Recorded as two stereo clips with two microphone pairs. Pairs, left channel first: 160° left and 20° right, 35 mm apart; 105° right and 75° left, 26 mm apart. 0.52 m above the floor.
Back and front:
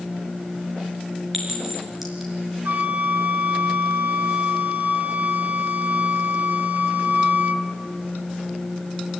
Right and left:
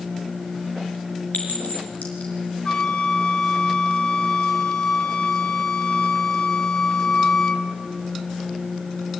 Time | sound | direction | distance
1.3 | a clink | 100° right | 5.5 m
2.6 | a flute | 45° right | 1.4 m